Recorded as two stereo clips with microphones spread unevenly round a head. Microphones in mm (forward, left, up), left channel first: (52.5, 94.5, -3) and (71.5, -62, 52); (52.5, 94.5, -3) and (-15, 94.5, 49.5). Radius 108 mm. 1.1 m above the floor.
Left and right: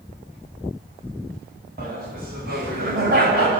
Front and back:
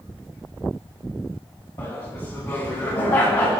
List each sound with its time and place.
1.8 s laughter: 55° right, 9.5 m; by 3.6 s 60° right, 7 m